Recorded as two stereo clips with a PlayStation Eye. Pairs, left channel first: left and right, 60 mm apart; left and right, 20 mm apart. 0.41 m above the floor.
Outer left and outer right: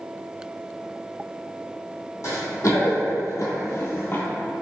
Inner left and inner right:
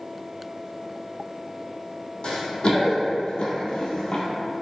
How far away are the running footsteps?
About 1.1 m.